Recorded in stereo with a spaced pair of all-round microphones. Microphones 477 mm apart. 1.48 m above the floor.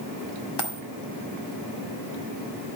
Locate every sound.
0.6 s a dropped coin: 55° left (ahead or behind), 2 m